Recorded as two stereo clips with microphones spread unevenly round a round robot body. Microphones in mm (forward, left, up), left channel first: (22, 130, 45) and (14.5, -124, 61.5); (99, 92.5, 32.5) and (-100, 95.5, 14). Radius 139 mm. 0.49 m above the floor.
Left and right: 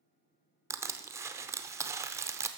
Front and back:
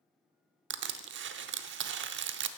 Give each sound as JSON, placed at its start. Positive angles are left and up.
{"t": 0.7, "sound": "crushing", "azimuth_deg": -170, "distance_m": 0.6}